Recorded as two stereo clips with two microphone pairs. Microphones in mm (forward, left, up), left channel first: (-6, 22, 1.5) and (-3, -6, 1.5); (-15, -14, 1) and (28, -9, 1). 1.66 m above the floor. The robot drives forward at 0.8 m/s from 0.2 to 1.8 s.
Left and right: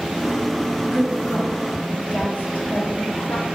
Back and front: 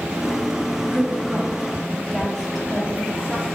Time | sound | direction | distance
0.8 | a woman speaking | 60° left | 1.3 m